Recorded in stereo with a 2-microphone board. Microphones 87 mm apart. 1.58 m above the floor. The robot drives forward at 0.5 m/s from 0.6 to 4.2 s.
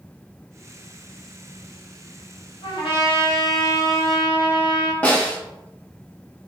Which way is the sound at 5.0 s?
15° left (ahead or behind).